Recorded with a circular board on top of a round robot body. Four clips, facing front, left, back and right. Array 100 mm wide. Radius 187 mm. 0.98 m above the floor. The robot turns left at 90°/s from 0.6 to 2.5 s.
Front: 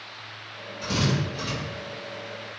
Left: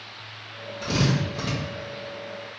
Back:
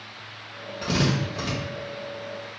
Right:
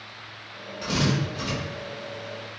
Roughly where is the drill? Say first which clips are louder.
Left 1 dB, back 2 dB; behind.